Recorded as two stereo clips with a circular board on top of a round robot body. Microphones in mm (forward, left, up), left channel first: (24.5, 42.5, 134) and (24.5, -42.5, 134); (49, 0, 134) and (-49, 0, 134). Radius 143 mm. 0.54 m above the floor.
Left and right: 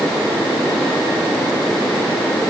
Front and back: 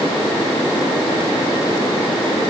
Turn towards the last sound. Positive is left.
No sound to turn to.